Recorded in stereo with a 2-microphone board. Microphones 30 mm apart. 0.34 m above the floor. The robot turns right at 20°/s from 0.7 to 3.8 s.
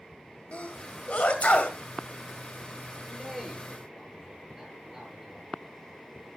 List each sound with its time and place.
0.5 s a sneeze: 45° left (ahead or behind), 2 m; by 1.8 s 50° left (ahead or behind), 2 m
3.1 s a man speaking: 5° left (ahead or behind), 7.5 m; by 5.5 s 10° right (ahead or behind), 7.5 m